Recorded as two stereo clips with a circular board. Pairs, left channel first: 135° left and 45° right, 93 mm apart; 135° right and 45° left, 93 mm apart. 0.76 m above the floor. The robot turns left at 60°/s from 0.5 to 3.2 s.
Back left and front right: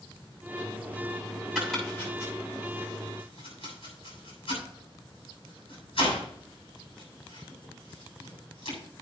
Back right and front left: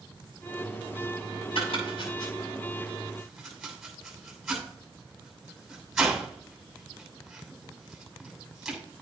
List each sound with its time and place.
1.6 s chopping: 125° right, 7 m; by 8.8 s 135° left, 7 m